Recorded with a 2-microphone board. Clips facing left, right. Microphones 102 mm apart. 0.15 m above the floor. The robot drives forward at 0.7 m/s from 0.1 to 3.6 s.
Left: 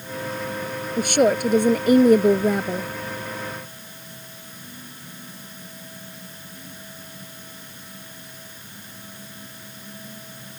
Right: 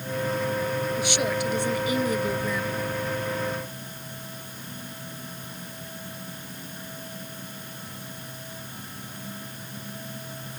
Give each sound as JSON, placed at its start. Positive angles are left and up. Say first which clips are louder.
{"t": 1.0, "sound": "a woman speaking", "louder": "left 7 dB", "side_deg": 50}